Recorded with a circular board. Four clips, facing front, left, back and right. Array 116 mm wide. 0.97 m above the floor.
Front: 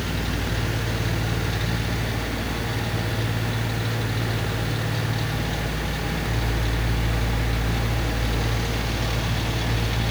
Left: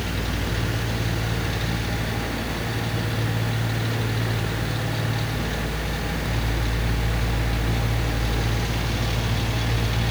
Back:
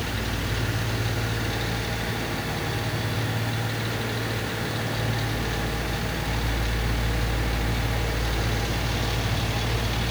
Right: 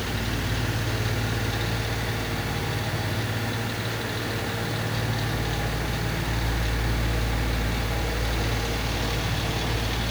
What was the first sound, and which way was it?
Only background noise.